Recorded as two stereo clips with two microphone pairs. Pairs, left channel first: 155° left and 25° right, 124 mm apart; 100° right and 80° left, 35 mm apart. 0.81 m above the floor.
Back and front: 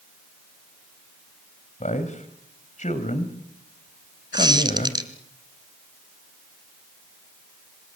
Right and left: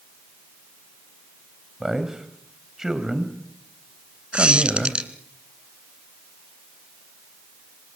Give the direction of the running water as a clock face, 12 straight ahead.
No running water in this recording.